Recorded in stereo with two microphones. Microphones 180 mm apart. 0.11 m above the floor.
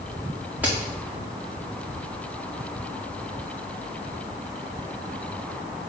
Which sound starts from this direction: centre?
A crack, at 0.6 s.